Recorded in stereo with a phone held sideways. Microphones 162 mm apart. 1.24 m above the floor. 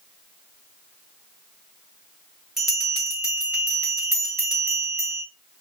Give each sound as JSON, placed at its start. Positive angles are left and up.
{"t": 2.6, "sound": "a bell", "side_deg": 0, "distance_m": 1.6}